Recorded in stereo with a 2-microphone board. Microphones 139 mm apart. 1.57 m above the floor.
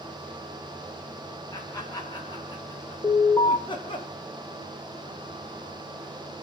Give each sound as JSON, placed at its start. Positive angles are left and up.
{"t": 1.5, "sound": "laughter", "side_deg": 25, "distance_m": 8.0}
{"t": 3.0, "sound": "an alarm", "side_deg": 25, "distance_m": 8.5}